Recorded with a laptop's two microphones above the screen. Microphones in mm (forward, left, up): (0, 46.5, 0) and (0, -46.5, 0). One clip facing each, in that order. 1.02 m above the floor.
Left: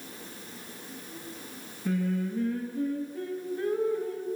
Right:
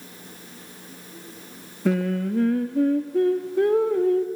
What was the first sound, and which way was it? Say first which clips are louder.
Singing: right 6 dB; 80° right.